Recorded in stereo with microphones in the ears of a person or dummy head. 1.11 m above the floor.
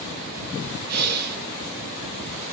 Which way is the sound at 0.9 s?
50° right (ahead or behind).